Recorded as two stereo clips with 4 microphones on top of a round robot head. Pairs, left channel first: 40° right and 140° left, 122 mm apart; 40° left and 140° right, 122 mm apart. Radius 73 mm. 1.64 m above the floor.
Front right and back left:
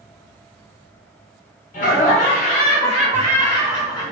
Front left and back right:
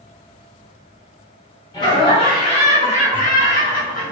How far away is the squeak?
I don't hear a squeak.